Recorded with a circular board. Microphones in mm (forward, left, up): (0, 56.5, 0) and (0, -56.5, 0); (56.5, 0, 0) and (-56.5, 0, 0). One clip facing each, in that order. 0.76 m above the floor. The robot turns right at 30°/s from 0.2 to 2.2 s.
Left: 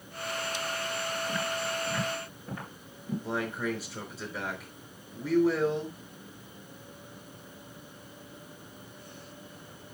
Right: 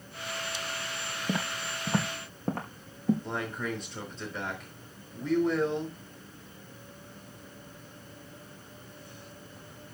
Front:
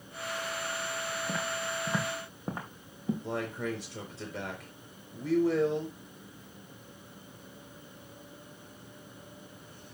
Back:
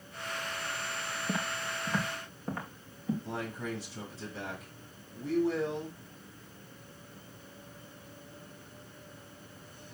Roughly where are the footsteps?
Right.